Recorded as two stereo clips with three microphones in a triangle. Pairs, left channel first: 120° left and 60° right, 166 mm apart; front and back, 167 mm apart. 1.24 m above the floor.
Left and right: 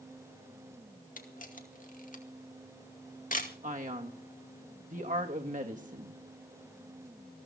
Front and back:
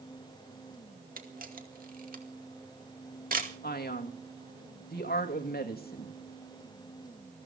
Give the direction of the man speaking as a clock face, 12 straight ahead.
1 o'clock.